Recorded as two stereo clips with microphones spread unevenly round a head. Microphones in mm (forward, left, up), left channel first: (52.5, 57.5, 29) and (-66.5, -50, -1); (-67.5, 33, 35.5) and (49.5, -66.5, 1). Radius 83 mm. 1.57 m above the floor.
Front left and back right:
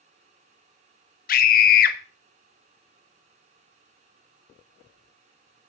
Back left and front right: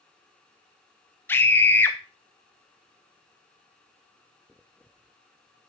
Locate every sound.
1.3 s a scream: 65° left, 1.6 m